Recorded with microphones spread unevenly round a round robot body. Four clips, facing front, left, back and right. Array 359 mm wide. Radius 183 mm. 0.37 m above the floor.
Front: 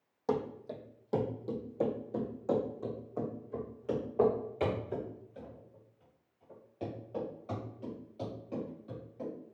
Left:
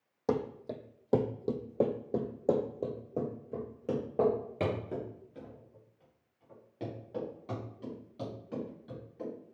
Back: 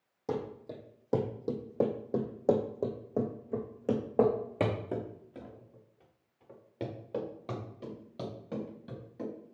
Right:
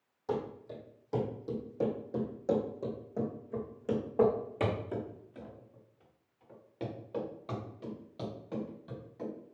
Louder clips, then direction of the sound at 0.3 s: Left 3 dB, front 2 dB; 105° left.